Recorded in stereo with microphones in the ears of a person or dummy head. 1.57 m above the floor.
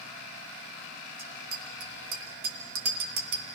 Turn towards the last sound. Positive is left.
turn(degrees=-65)  # may be behind; listen again after turning